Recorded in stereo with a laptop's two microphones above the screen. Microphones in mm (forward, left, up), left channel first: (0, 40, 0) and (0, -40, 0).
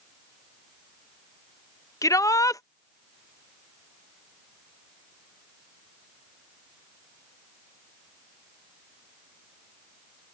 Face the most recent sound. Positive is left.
turn(degrees=45)  # may be behind; listen again after turning